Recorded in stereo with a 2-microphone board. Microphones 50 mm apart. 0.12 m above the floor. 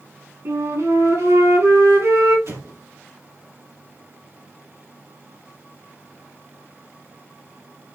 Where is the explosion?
60° right (ahead or behind), 2.5 m.